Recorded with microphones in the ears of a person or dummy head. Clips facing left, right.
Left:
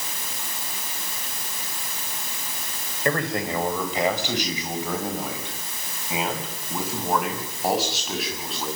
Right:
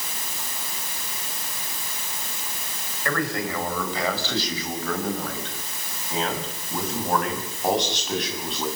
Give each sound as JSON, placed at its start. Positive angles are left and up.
{"t": 3.0, "sound": "a man speaking", "side_deg": 20, "distance_m": 5.0}